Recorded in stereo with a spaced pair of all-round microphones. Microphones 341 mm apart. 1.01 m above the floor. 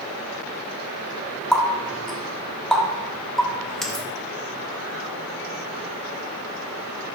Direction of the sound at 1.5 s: Centre (ahead or behind).